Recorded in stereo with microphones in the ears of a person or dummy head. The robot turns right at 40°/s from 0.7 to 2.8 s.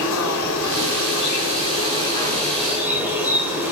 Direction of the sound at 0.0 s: 105° left.